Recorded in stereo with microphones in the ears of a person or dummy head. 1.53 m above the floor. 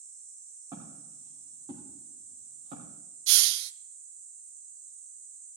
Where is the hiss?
70° right (ahead or behind), 0.5 m.